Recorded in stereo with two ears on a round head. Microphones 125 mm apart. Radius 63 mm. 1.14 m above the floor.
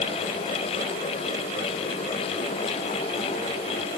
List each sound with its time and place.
Only background noise.